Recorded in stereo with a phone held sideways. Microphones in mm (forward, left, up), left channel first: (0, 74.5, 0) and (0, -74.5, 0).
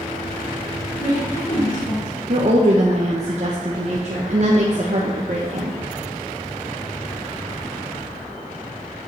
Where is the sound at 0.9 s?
75° left (ahead or behind), 3.5 m.